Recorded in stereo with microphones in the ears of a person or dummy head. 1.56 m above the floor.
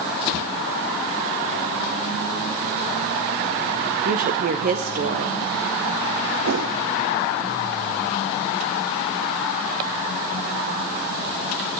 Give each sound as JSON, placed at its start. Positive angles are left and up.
{"t": 4.0, "sound": "a woman speaking", "side_deg": -35, "distance_m": 0.6}
{"t": 6.5, "sound": "a whoosh", "side_deg": -60, "distance_m": 1.0}